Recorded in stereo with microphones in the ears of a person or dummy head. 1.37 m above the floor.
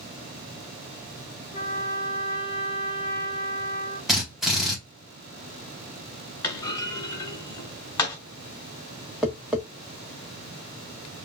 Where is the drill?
Centre (ahead or behind), 1.9 m.